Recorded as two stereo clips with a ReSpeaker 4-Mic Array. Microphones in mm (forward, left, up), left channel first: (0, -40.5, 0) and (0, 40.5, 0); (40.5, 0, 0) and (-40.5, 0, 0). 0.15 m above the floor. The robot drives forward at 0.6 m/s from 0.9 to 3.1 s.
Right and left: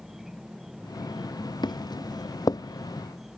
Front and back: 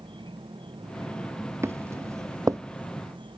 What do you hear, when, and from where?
0.0 s an insect: 175° left
1.6 s footsteps: 120° right; by 2.6 s 130° right